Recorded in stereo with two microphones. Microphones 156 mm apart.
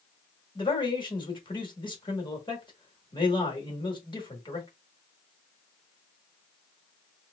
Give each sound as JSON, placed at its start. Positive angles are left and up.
{"t": 0.6, "sound": "a man speaking", "side_deg": 30, "distance_m": 1.3}